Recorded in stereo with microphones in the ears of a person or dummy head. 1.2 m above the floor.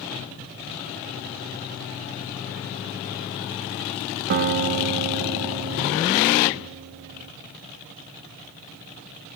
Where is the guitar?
50° right (ahead or behind), 0.5 m.